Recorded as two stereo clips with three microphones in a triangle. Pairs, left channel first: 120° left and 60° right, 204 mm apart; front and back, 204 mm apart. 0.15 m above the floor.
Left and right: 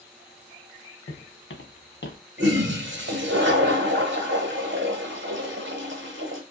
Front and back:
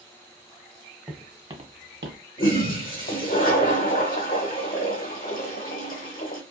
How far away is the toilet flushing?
About 1.1 m.